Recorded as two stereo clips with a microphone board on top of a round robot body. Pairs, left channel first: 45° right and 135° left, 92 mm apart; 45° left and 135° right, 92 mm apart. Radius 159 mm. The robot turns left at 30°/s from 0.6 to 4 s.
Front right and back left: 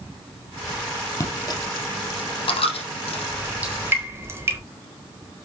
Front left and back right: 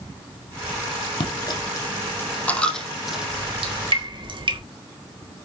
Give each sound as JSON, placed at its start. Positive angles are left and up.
{"t": 1.2, "sound": "a dropped coin", "azimuth_deg": 10, "distance_m": 4.0}
{"t": 3.3, "sound": "dripping", "azimuth_deg": -145, "distance_m": 4.0}